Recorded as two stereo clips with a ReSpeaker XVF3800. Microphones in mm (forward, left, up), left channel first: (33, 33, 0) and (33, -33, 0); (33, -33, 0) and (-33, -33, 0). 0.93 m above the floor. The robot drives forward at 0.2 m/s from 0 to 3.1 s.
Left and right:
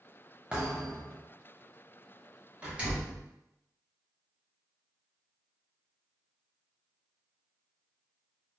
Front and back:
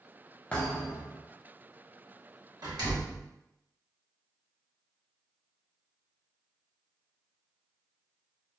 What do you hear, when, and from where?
0.5 s a thud: 40° right, 0.8 m; by 1.2 s 55° right, 0.7 m
2.6 s a door slam: 155° right, 0.9 m; by 3.2 s 160° right, 1.0 m